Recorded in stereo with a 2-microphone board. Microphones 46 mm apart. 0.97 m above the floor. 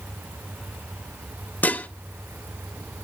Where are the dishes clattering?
40° left (ahead or behind), 0.9 m.